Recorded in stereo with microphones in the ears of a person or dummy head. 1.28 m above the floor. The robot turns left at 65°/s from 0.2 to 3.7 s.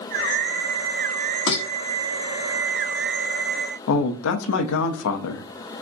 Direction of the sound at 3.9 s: 70° left (ahead or behind).